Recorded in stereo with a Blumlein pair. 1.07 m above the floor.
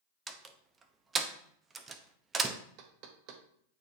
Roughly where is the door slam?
Ahead.